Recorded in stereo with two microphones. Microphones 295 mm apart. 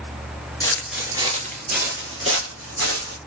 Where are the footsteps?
10° left (ahead or behind), 1.1 m; by 3.2 s 60° right (ahead or behind), 2.5 m.